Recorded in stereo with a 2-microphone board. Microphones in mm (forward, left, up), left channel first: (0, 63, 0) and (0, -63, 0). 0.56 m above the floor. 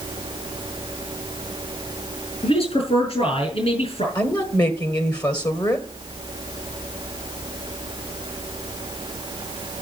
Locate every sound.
2.4 s a man speaking: 55° left (ahead or behind), 5.5 m
4.2 s a woman speaking: 35° left (ahead or behind), 1.6 m